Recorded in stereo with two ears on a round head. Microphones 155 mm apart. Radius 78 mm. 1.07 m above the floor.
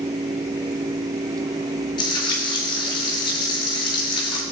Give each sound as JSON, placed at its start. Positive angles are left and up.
{"t": 2.0, "sound": "frying", "side_deg": 25, "distance_m": 5.0}